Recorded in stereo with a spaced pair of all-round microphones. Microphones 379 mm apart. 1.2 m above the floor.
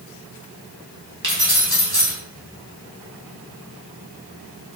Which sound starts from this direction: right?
Keys jangling, at 1.2 s.